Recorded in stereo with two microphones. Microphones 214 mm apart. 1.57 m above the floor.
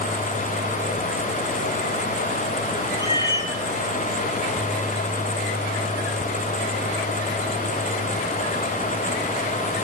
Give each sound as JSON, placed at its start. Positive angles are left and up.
{"t": 3.0, "sound": "a cat meowing", "side_deg": 20, "distance_m": 1.2}